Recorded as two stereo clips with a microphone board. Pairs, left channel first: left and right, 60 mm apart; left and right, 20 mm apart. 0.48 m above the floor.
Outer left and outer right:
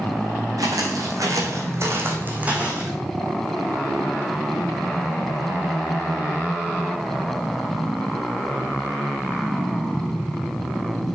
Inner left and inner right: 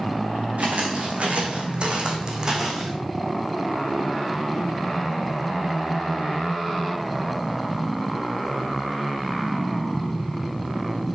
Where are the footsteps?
80° right, 2.5 m; by 2.9 s 15° right (ahead or behind), 2.5 m.